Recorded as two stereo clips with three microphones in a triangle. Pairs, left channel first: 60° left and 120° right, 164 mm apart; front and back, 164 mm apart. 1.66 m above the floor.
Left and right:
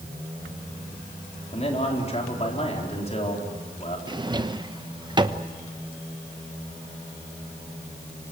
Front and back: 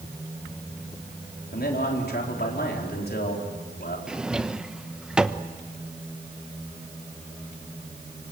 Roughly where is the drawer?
Right.